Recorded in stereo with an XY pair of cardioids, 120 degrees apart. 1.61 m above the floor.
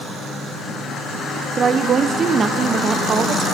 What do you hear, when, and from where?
1.6 s a woman speaking: 40° right, 0.9 m